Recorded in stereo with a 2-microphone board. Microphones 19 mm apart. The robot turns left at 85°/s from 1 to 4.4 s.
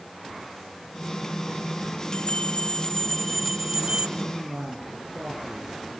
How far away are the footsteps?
No footsteps in this recording.